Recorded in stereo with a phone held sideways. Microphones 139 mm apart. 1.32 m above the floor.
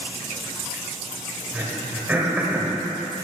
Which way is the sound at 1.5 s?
15° right (ahead or behind).